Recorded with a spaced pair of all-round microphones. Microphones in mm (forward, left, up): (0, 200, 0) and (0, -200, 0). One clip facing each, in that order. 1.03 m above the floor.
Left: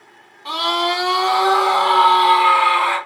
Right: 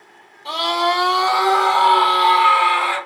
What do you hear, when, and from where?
0.5 s a scream: 15° left (ahead or behind), 0.7 m; by 3.0 s 70° left (ahead or behind), 1.6 m